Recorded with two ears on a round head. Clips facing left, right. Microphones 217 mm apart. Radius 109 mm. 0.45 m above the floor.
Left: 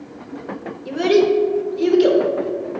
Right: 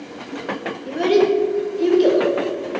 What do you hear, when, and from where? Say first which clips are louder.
0.8 s a child speaking: left 1 dB; 10° left (ahead or behind), 0.9 m